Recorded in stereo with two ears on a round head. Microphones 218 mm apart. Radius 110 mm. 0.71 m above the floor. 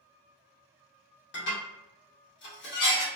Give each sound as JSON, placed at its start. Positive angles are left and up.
{"t": 1.3, "sound": "dishes clattering", "side_deg": 50, "distance_m": 1.2}